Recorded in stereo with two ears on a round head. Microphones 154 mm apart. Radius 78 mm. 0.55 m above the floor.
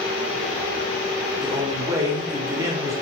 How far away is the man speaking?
About 0.7 m.